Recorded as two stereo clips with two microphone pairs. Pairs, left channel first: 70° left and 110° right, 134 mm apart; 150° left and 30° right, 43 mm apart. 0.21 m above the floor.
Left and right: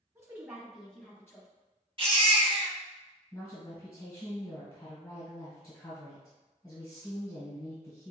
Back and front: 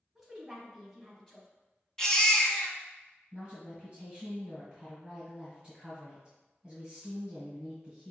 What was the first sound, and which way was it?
A woman speaking, 100° right.